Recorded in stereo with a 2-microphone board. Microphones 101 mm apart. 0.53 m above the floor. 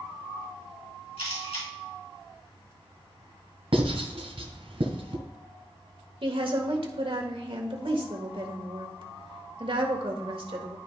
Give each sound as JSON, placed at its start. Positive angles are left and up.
{"t": 1.2, "sound": "a camera shutter", "side_deg": 70, "distance_m": 4.0}
{"t": 3.7, "sound": "writing", "side_deg": -70, "distance_m": 1.7}
{"t": 6.2, "sound": "a woman speaking", "side_deg": -60, "distance_m": 1.6}